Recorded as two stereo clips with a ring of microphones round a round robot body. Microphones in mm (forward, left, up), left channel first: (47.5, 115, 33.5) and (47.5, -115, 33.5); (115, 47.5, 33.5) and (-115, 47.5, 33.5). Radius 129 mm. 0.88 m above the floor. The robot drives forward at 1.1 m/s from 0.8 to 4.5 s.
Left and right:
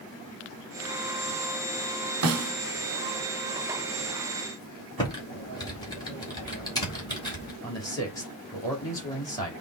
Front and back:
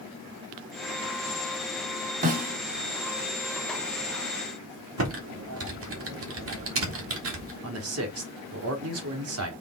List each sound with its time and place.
2.2 s a snare drum: 120° right, 1.7 m; by 2.5 s 125° right, 1.9 m
5.0 s typing on a keyboard: 165° left, 2 m
7.6 s a man speaking: 165° left, 2.5 m